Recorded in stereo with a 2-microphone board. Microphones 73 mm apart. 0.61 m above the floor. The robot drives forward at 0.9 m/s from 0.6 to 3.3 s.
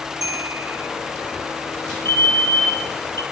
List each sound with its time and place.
0.2 s a bell: 55° right (ahead or behind), 2.5 m; by 0.9 s 60° right (ahead or behind), 2.5 m
2.0 s a fire alarm: 75° right (ahead or behind), 8 m; by 3.2 s 80° right, 8 m